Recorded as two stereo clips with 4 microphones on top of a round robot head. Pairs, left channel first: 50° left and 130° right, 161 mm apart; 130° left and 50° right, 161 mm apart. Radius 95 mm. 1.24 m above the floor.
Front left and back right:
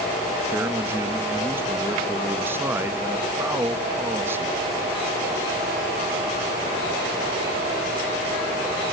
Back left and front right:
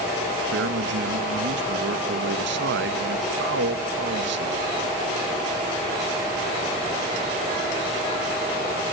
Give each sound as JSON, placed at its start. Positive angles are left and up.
{"t": 0.5, "sound": "a man speaking", "azimuth_deg": -55, "distance_m": 1.8}